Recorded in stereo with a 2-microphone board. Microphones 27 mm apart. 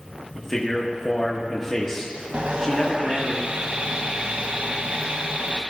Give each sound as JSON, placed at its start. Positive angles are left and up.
{"t": 0.3, "sound": "a man speaking", "side_deg": 10, "distance_m": 1.1}
{"t": 2.3, "sound": "sawing", "side_deg": -45, "distance_m": 0.8}